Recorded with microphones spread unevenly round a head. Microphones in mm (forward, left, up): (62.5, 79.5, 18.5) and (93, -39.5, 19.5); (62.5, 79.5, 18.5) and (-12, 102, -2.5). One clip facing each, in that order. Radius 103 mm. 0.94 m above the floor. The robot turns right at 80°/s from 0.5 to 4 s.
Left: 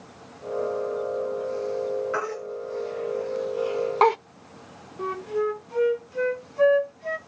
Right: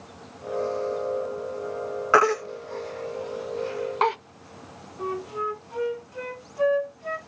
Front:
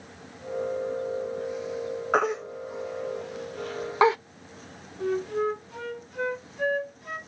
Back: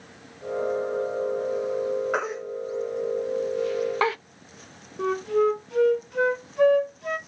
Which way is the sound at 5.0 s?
160° left.